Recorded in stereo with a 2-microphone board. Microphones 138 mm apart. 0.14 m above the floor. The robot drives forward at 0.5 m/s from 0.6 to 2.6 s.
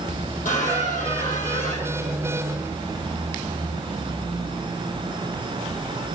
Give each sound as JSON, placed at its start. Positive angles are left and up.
{"t": 0.5, "sound": "a squeak", "side_deg": 75, "distance_m": 2.5}